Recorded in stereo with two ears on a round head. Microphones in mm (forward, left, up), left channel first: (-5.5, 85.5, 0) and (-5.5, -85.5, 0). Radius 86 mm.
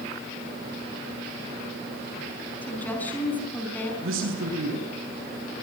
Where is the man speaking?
75° right (ahead or behind), 6 m.